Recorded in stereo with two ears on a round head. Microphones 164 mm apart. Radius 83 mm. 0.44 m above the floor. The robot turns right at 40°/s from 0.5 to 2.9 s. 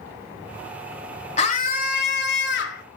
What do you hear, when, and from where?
1.4 s a scream: 40° left, 2.0 m; by 2.8 s 100° left, 2.0 m